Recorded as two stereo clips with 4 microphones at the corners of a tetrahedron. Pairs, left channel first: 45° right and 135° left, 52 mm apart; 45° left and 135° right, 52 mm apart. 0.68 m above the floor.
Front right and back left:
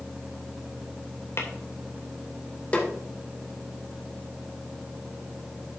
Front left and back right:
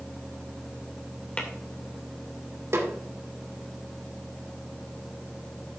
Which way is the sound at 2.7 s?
110° right.